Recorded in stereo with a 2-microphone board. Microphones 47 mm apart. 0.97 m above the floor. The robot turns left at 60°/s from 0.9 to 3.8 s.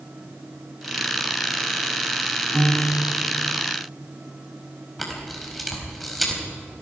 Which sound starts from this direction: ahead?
A piano, at 2.5 s.